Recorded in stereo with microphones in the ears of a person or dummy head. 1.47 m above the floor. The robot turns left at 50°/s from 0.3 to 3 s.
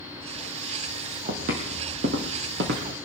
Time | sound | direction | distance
1.3 | footsteps | 45° right (ahead or behind) | 2 m